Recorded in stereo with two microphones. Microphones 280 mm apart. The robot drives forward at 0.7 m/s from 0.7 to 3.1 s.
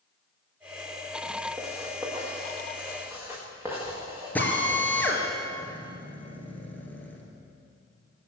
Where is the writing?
10° right (ahead or behind), 3.5 m.